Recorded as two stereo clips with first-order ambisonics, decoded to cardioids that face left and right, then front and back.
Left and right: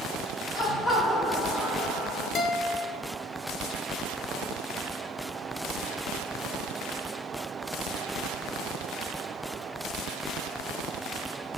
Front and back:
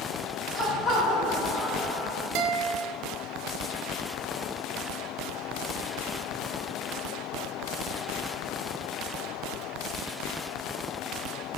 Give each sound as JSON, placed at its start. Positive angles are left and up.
{"t": 0.5, "sound": "laughter", "azimuth_deg": 60, "distance_m": 1.3}
{"t": 2.4, "sound": "a guitar", "azimuth_deg": 150, "distance_m": 0.6}